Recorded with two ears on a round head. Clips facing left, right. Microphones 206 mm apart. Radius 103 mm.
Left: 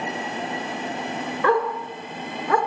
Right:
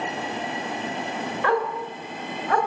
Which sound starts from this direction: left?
A dog barking, at 1.4 s.